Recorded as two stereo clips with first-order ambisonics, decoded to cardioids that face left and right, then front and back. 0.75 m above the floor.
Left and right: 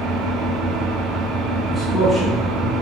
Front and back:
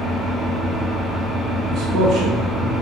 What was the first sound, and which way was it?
An engine running, 95° right.